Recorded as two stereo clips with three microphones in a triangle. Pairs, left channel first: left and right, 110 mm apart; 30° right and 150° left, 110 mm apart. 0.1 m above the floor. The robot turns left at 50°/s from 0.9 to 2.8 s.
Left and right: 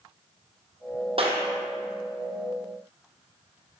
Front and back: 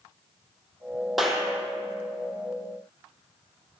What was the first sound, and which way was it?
A clap, 120° right.